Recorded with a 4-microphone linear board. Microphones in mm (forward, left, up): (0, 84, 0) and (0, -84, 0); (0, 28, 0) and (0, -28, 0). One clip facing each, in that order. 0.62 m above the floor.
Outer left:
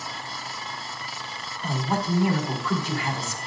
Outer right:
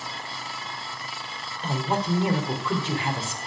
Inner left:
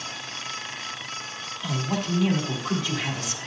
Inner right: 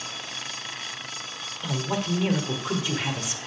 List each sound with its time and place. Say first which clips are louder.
1.6 s a man speaking: even, even; 25° right (ahead or behind), 1.7 m